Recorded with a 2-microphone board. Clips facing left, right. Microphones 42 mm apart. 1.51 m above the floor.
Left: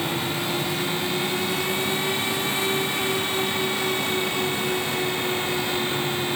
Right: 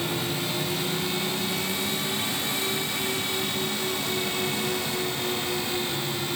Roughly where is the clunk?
No clunk in this recording.